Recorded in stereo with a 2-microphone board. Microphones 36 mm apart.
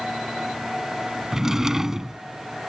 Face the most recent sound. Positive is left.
turn(degrees=-15)  # may be behind; listen again after turning